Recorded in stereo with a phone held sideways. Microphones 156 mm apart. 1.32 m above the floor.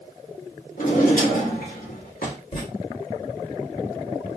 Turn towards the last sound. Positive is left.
turn(degrees=35)  # may be behind; listen again after turning